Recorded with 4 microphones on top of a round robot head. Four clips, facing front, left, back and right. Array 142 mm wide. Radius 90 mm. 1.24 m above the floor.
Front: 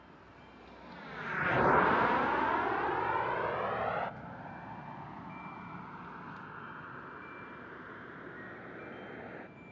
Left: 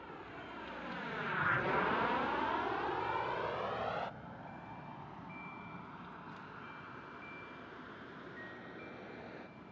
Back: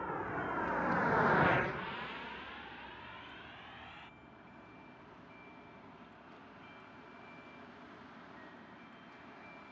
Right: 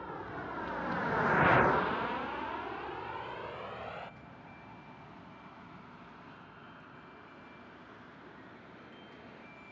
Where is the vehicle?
160° right; by 9.7 s 15° left.